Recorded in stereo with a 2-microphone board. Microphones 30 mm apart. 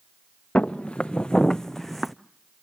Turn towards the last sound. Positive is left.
turn(degrees=-5)  # may be behind; listen again after turning